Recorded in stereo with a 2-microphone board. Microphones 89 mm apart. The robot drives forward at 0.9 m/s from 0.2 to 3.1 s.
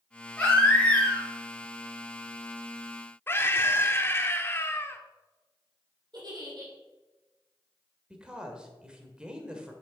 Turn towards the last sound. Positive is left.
turn(degrees=-10)  # may be behind; listen again after turning